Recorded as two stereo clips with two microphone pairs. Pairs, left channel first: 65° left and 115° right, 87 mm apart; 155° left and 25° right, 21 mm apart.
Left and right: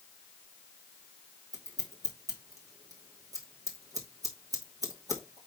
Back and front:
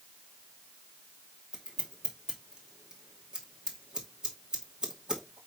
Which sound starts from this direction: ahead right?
Scissors, at 1.5 s.